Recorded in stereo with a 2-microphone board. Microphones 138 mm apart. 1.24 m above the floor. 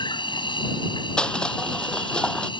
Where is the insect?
35° left (ahead or behind).